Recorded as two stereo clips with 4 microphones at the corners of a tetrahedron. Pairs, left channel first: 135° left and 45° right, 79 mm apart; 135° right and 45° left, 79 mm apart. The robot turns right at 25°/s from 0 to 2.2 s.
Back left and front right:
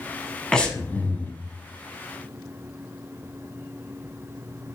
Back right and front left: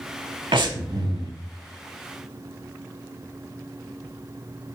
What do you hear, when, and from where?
0.5 s breathing: 55° left, 0.5 m; by 1.3 s 75° left, 0.5 m